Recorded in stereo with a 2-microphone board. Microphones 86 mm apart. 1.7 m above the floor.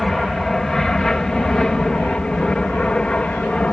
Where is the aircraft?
5° left (ahead or behind); by 3.7 s 15° left (ahead or behind).